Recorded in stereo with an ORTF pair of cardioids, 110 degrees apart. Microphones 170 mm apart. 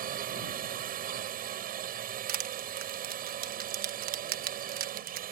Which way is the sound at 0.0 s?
60° right.